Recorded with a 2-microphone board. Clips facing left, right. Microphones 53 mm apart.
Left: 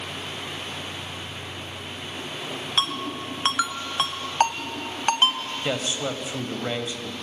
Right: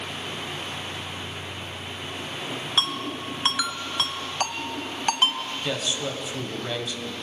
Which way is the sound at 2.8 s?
30° left (ahead or behind).